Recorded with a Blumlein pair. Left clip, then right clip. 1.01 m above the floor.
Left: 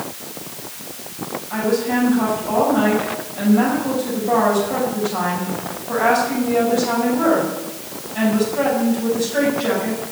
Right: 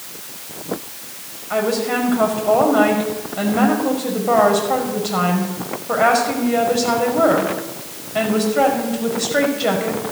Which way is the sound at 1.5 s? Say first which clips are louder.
Right 1 dB; 65° right.